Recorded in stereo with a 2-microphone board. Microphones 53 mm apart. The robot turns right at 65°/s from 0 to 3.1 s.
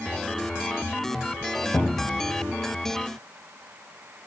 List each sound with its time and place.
1.7 s a cupboard door: 110° left, 0.8 m; by 2.2 s 145° left, 0.8 m